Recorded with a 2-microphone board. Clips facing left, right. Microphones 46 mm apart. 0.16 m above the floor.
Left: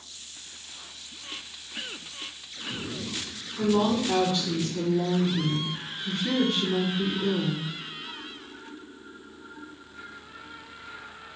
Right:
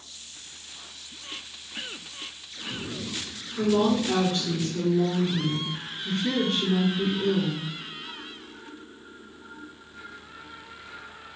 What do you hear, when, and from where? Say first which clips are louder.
3.6 s a woman speaking: right 1 dB; 45° right (ahead or behind), 2.5 m